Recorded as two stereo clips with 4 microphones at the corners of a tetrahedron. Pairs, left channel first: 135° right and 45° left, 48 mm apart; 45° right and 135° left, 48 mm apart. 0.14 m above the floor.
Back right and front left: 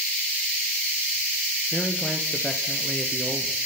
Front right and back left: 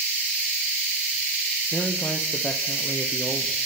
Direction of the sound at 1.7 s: 65° right.